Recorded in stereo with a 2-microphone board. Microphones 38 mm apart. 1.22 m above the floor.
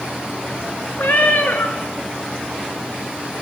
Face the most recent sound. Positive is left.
turn(degrees=65)  # may be behind; listen again after turning